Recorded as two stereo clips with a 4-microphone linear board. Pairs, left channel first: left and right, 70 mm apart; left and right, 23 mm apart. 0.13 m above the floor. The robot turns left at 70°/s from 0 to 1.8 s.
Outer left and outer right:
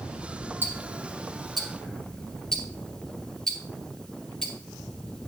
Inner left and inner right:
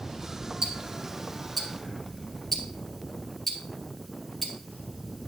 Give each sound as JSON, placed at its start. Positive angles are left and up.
{"t": 0.6, "sound": "ticking", "side_deg": -30, "distance_m": 1.4}